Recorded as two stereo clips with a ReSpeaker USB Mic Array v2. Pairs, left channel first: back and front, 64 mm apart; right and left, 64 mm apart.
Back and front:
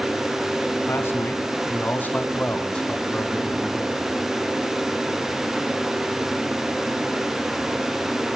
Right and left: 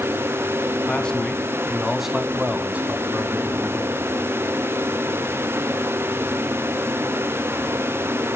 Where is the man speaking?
155° right, 2 m; by 4.2 s 85° left, 2 m.